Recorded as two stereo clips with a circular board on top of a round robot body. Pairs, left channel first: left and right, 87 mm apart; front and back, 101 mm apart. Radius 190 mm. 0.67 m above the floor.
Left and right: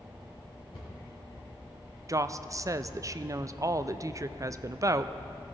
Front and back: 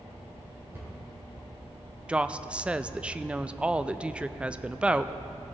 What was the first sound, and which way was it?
A cupboard door, 115° left.